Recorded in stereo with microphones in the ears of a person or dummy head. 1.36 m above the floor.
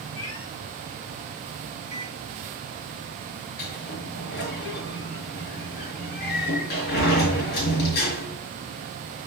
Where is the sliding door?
60° left (ahead or behind), 5 m.